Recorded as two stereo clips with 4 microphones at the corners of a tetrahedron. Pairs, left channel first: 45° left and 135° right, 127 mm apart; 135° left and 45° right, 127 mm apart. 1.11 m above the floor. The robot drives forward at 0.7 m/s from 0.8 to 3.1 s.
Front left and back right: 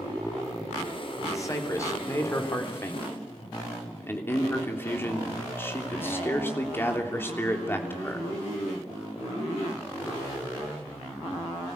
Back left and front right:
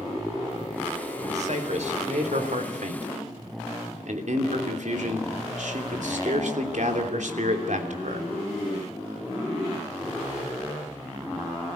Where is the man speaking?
20° right, 4 m; by 8.3 s 25° right, 3 m.